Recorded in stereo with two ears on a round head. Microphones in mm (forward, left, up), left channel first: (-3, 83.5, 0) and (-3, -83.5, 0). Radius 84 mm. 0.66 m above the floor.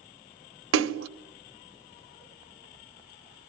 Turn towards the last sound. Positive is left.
turn(degrees=-75)  # may be behind; listen again after turning